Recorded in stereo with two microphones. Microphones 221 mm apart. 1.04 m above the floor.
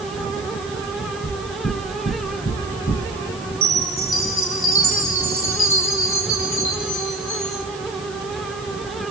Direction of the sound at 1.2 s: 45° left (ahead or behind).